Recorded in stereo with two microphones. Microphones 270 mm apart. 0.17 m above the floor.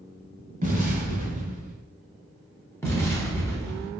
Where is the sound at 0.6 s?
35° right (ahead or behind), 1.2 m.